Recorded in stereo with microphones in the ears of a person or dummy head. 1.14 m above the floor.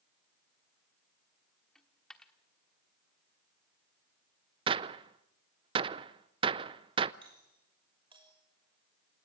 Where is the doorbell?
25° right (ahead or behind), 6 m.